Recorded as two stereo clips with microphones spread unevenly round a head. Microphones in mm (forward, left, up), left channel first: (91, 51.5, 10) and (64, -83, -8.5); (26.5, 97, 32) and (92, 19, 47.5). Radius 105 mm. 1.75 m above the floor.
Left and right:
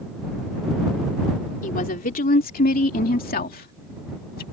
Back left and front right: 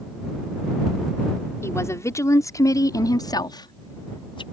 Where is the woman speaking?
65° left; by 4.4 s 95° left.